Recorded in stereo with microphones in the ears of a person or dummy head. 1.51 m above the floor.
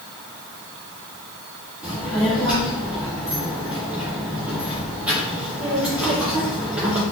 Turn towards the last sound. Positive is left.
turn(degrees=-10)  # may be behind; listen again after turning